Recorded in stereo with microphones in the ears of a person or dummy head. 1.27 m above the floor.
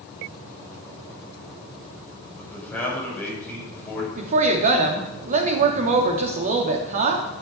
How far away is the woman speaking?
About 2.5 m.